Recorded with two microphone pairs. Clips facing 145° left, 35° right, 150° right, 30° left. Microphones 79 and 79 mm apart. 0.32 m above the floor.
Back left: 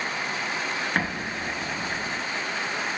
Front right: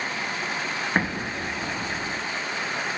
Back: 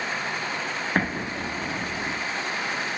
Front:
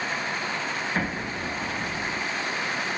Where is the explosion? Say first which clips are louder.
Front right 2 dB, back 2 dB; 105° right, 0.6 m.